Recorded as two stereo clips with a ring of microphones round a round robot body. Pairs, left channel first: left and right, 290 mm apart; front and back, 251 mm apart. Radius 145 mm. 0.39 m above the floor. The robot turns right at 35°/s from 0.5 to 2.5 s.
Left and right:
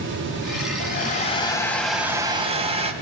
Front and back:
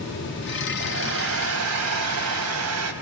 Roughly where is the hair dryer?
Behind left.